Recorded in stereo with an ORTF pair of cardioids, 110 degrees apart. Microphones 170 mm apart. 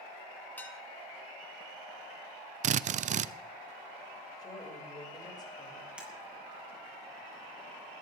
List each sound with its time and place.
0.6 s dishes clattering: 10° left, 2 m
2.6 s a drill: 45° right, 0.7 m
4.4 s a woman speaking: 25° left, 7 m
6.0 s breaking glass: 5° right, 7.5 m